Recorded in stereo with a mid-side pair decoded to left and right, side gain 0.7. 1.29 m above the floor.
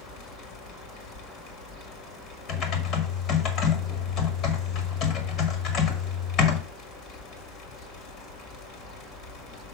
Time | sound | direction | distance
0.0 | a fan | 65° left | 1.9 m
2.5 | typing on a keyboard | 55° left | 1.6 m